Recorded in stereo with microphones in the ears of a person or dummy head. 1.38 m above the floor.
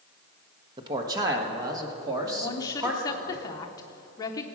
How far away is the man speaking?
About 1.3 m.